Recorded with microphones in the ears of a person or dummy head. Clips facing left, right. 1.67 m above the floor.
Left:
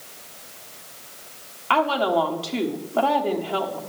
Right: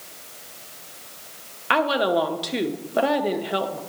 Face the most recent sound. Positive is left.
turn(degrees=-15)  # may be behind; listen again after turning